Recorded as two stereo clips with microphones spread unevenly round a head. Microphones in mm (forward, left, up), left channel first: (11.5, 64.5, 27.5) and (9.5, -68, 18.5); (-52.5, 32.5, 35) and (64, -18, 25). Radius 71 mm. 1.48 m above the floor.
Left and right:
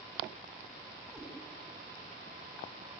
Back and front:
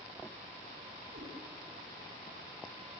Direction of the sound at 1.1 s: 5° right.